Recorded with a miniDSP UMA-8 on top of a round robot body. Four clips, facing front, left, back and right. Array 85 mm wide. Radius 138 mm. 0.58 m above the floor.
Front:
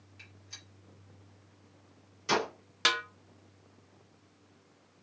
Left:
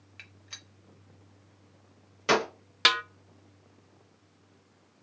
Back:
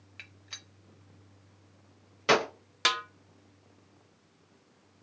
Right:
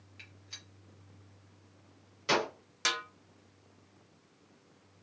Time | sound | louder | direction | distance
0.2 | a gunshot | left 4 dB, back 5 dB | 140° left | 0.6 m
2.9 | a snare drum | left 8 dB, back 1 dB | 95° left | 0.7 m